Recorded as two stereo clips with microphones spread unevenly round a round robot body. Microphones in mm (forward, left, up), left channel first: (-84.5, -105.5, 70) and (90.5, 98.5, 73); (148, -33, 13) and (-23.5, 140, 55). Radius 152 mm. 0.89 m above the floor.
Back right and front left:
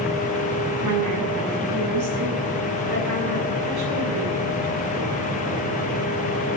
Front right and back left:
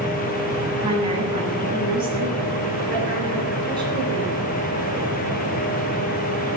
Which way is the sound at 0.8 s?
65° left.